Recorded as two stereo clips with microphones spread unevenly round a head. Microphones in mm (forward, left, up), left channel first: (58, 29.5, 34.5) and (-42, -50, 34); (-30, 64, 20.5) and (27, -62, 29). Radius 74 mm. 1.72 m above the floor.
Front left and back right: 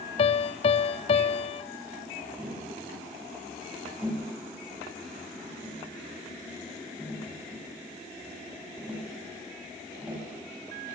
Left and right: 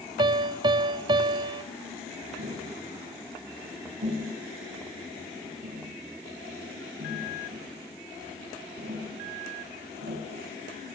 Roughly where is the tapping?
Ahead right.